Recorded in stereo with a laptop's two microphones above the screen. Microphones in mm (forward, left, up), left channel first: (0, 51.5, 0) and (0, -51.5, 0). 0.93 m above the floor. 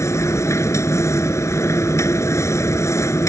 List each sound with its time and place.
0.0 s a machine running: 25° left (ahead or behind)